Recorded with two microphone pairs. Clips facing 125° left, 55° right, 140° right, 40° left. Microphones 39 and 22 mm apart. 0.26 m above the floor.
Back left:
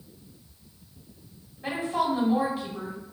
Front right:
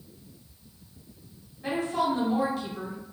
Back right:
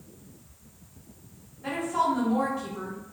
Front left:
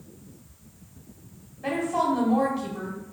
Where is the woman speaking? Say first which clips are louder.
Even, front left 1 dB; 60° left, 1.8 m.